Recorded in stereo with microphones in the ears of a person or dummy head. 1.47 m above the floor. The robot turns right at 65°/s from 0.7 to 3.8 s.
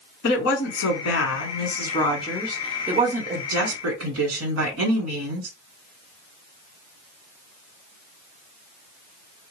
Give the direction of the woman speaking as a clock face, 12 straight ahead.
10 o'clock.